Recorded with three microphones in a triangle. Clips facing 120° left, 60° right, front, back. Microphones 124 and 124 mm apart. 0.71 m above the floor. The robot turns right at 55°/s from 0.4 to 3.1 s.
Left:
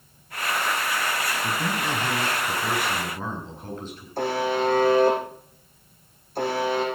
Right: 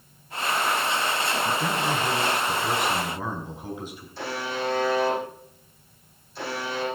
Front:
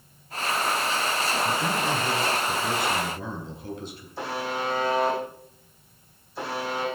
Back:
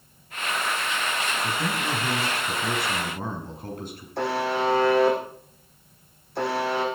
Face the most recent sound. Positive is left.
turn(degrees=160)